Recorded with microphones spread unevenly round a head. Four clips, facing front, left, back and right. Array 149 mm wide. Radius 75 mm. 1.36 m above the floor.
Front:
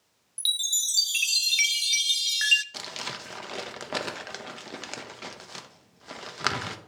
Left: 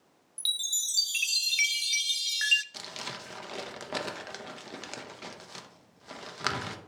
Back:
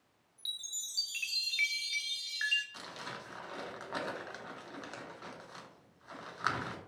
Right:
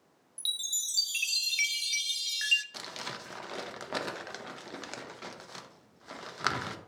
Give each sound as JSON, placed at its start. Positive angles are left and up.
{"t": 0.4, "sound": "a chime", "azimuth_deg": 0, "distance_m": 0.6}
{"t": 2.7, "sound": "crumpling", "azimuth_deg": -25, "distance_m": 1.0}